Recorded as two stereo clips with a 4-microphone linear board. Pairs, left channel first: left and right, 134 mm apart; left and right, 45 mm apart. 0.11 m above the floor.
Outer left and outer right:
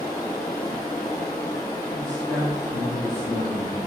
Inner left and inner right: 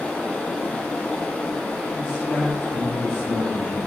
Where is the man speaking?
5° left (ahead or behind), 1.6 m.